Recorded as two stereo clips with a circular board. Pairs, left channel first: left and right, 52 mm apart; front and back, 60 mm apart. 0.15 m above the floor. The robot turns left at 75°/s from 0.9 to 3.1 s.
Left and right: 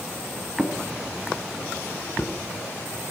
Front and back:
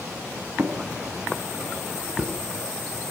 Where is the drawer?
145° right, 0.9 m; by 2.4 s 105° left, 0.9 m.